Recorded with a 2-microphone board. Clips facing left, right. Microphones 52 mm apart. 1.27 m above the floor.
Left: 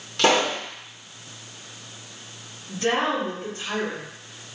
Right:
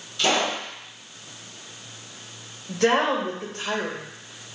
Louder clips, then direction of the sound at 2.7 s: Right 3 dB; 65° right (ahead or behind).